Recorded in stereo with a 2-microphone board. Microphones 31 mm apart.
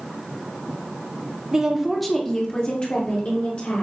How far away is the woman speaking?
About 0.8 m.